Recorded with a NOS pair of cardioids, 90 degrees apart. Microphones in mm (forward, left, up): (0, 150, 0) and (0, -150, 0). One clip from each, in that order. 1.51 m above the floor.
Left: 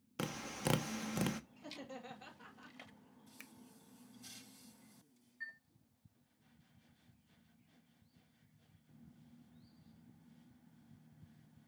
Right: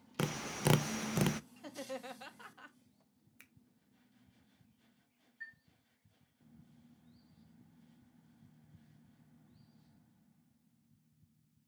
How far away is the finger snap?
About 1.1 m.